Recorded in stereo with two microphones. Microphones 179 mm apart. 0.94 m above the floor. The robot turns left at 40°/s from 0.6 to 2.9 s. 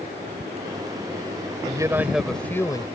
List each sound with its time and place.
1.6 s a man speaking: 155° right; by 2.9 s 155° left